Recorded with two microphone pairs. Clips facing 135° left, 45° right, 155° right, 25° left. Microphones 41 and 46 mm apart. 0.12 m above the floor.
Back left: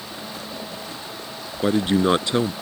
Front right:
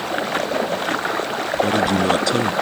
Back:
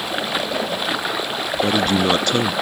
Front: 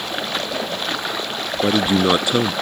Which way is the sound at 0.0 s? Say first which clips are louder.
Front right 13 dB, back 2 dB; 75° right.